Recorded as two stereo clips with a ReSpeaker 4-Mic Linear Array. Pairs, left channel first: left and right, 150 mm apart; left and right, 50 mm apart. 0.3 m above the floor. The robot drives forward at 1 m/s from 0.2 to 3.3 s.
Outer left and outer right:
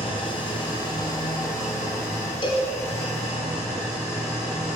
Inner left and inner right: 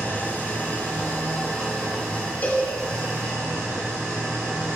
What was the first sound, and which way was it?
An engine running, 35° left (ahead or behind).